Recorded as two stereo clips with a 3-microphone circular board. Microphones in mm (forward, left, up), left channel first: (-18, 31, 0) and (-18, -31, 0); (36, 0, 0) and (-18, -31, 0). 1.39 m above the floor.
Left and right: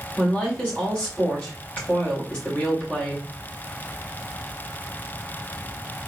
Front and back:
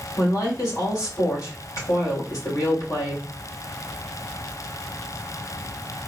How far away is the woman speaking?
About 3 m.